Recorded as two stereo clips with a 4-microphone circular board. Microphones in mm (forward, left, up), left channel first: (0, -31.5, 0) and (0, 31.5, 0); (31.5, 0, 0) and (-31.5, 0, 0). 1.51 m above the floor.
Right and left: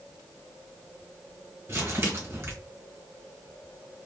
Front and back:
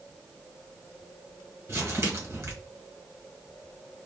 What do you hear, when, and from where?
1.7 s crumpling: 140° left, 1.5 m